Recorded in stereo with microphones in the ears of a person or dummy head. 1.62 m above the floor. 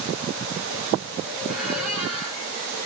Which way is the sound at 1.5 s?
5° right (ahead or behind).